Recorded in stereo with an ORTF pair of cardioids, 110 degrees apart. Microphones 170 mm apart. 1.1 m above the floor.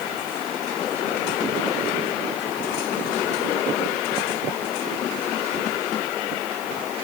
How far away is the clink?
No clink in this recording.